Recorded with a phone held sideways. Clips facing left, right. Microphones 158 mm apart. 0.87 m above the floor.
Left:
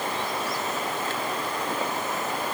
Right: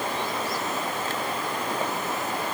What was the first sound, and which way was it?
Only background noise.